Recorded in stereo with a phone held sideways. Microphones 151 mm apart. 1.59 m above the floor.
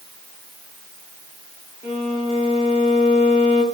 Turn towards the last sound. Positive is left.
turn(degrees=40)  # may be behind; listen again after turning